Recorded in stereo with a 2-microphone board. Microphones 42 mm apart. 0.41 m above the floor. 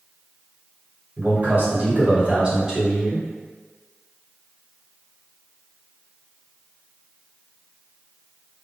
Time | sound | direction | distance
1.2 | a man speaking | 55° right (ahead or behind) | 1.8 m